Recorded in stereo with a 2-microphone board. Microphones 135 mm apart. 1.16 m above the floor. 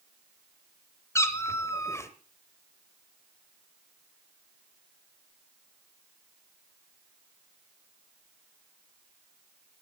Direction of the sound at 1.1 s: 20° left (ahead or behind).